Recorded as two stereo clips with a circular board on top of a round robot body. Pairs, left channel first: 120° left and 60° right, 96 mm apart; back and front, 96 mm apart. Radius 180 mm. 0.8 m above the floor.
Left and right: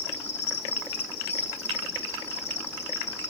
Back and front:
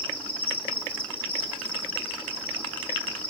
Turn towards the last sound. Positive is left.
turn(degrees=145)